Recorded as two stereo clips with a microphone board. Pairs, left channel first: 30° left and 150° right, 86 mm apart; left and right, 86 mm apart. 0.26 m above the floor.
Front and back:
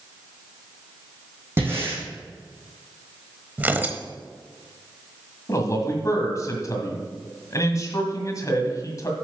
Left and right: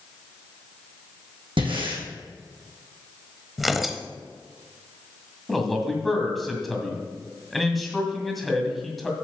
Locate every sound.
1.6 s breathing: 85° right, 3 m
3.6 s tearing paper: 175° right, 0.7 m
5.5 s a man speaking: straight ahead, 1.9 m